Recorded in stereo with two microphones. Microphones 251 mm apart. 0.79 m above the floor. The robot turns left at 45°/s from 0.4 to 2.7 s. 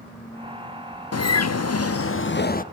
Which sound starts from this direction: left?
A bird, at 1.1 s.